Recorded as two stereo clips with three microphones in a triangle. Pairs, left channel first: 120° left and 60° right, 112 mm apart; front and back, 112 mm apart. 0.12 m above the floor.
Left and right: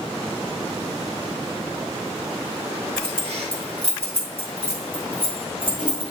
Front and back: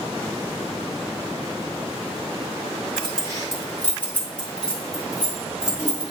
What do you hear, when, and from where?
3.0 s keys jangling: 45° right, 1.9 m; by 6.1 s 105° right, 2.5 m